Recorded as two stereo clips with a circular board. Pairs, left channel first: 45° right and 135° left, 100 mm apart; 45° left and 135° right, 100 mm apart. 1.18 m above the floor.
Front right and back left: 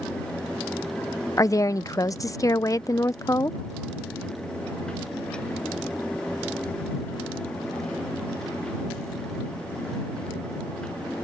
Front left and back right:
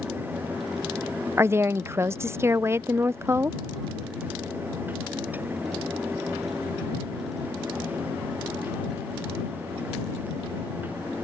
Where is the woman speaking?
85° right.